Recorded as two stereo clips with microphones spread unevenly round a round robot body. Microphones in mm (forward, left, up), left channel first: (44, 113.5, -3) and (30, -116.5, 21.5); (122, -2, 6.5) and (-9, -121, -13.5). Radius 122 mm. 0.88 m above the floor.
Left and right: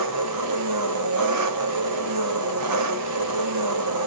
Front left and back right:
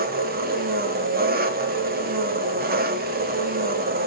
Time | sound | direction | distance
0.0 | an engine running | 110° right | 1.5 m